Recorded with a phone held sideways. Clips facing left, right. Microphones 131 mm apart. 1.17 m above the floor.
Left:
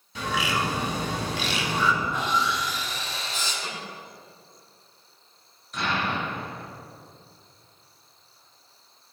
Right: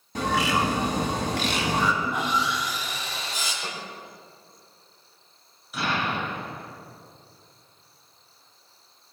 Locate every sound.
0.1 s a bird: 50° right (ahead or behind), 2.5 m
2.0 s sawing: 15° right (ahead or behind), 5.5 m
3.6 s a snare drum: 5° right (ahead or behind), 5.5 m
5.7 s an explosion: 5° right (ahead or behind), 4 m